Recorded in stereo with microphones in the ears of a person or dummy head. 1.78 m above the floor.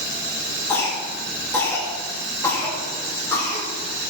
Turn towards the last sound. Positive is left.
turn(degrees=15)  # may be behind; listen again after turning